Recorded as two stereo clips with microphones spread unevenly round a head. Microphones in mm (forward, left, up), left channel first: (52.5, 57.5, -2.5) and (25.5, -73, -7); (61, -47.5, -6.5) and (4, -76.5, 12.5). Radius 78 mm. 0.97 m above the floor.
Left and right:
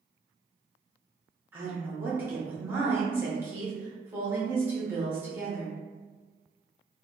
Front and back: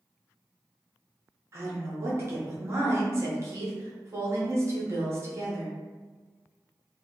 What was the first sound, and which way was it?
A woman speaking, 150° right.